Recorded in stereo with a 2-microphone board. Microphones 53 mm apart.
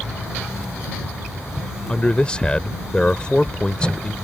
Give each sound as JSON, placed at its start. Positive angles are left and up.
{"t": 1.9, "sound": "a man speaking", "side_deg": 20}